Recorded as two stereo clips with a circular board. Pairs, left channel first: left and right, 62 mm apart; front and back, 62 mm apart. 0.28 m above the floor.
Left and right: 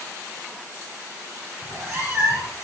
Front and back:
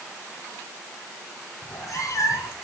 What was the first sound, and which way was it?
A cat meowing, 30° right.